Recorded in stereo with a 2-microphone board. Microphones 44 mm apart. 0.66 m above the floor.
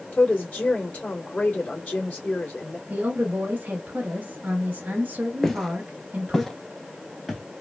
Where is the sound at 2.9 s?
35° right (ahead or behind), 1.0 m.